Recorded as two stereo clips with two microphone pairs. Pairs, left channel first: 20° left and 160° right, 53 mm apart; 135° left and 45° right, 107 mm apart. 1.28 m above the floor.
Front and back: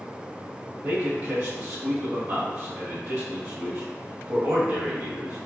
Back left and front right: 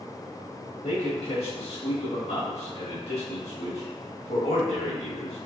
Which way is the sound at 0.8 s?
155° left.